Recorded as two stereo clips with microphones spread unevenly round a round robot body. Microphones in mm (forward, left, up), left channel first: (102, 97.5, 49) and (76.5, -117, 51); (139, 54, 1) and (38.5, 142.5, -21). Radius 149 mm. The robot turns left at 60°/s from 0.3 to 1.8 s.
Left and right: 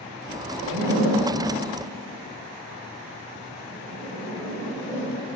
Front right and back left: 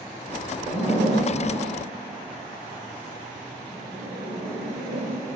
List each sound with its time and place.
0.6 s a zipper: 120° right, 2 m; by 5.1 s 170° left, 2 m